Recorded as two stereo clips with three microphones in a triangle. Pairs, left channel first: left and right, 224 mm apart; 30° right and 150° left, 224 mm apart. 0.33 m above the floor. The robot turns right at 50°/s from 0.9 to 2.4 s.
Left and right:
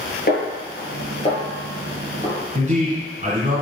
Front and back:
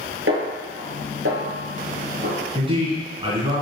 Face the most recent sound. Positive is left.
turn(degrees=-145)